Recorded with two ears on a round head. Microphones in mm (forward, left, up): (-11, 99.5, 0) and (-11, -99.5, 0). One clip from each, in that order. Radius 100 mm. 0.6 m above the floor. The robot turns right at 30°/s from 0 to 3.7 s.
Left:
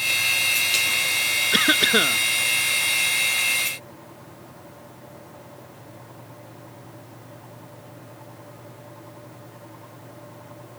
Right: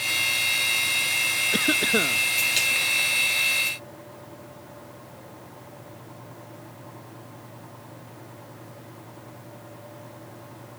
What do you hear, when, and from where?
1.5 s a cough: 50° left (ahead or behind); by 2.2 s 70° left (ahead or behind)